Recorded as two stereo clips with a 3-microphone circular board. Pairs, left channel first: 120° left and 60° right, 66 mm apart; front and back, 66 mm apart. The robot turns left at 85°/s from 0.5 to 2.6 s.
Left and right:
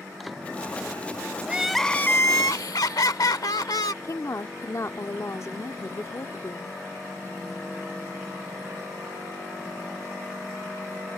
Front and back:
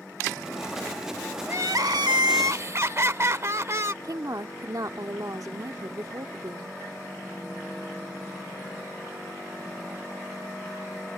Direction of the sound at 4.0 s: 160° left.